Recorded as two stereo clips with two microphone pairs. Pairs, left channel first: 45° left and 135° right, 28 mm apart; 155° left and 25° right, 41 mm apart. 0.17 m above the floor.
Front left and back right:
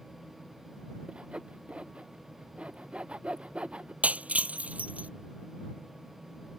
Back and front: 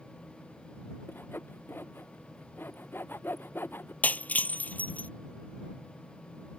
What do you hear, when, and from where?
1.1 s sawing: straight behind
4.0 s breaking glass: 160° right